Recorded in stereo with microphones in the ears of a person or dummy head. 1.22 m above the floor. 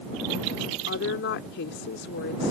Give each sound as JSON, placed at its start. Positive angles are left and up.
{"t": 0.9, "sound": "a woman speaking", "side_deg": 55}